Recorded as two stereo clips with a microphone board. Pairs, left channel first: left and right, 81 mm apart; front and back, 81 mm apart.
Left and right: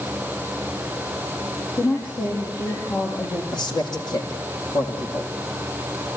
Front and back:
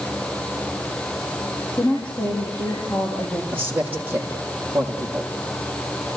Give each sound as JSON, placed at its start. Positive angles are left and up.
{"t": 1.8, "sound": "a woman speaking", "azimuth_deg": 75, "distance_m": 7.0}
{"t": 3.5, "sound": "a man speaking", "azimuth_deg": 115, "distance_m": 6.0}